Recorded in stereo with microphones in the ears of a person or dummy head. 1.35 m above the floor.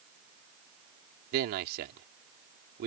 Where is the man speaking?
55° right (ahead or behind).